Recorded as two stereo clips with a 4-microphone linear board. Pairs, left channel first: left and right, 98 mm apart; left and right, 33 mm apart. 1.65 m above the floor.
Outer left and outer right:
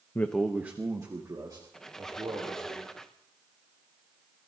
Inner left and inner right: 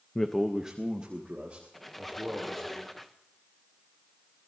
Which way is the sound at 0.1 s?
25° left (ahead or behind).